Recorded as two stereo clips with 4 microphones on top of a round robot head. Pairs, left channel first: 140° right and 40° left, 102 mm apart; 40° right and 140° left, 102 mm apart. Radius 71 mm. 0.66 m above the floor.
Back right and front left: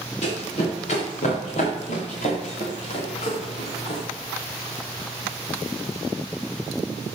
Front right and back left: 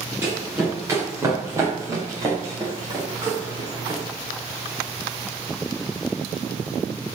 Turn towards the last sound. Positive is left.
turn(degrees=-165)